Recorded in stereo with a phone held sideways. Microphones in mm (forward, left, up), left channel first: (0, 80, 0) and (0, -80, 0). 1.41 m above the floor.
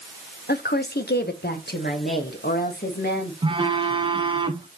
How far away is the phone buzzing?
About 0.7 m.